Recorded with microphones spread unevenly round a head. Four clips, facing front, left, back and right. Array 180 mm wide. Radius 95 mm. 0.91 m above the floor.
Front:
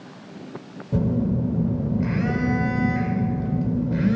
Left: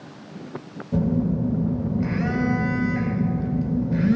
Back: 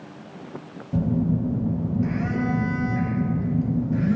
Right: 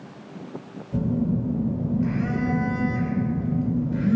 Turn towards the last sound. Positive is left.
turn(degrees=25)